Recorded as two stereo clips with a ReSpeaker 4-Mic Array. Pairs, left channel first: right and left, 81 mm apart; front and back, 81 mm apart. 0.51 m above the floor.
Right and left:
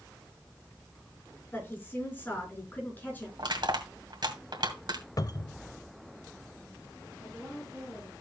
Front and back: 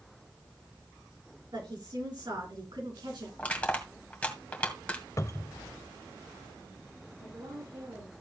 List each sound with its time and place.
1.5 s a woman speaking: 155° right, 6 m
3.4 s crushing: 75° left, 2 m
5.2 s a cupboard door: 50° right, 0.6 m
7.2 s a woman speaking: 165° left, 5.5 m